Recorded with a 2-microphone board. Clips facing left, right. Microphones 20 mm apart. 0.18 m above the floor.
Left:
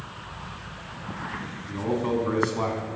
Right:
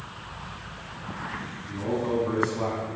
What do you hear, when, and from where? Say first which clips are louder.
1.7 s a man speaking: left 1 dB; 25° left (ahead or behind), 1.2 m